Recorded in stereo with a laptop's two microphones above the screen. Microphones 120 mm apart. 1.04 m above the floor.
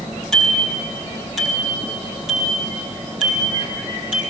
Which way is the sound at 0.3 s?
5° left (ahead or behind).